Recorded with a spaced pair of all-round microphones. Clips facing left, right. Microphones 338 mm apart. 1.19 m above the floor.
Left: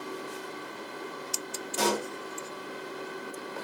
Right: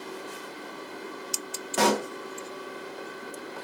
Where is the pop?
75° right (ahead or behind), 0.6 m.